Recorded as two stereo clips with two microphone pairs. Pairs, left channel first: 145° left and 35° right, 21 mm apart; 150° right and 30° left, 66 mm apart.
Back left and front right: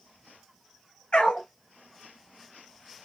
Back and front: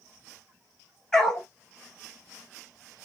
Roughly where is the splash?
No splash in this recording.